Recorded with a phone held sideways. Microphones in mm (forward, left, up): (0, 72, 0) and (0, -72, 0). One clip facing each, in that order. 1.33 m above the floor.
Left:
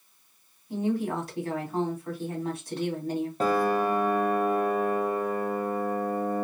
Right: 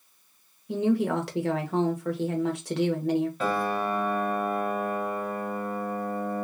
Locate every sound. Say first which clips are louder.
0.7 s a woman speaking: right 4 dB; 75° right (ahead or behind), 1.1 m
3.4 s a piano: left 3 dB; 40° left (ahead or behind), 1.1 m